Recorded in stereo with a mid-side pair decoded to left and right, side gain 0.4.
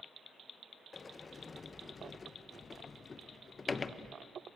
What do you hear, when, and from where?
0.9 s a sliding door: 35° left, 0.9 m